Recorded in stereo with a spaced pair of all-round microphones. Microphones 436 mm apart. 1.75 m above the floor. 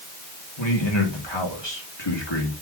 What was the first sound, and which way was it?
A man speaking, 75° left (ahead or behind).